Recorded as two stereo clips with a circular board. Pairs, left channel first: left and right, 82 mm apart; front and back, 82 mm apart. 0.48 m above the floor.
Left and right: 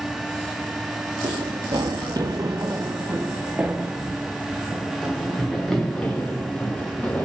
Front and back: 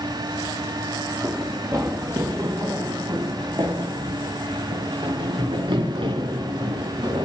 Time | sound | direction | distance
1.2 | running footsteps | 120° right | 2.5 m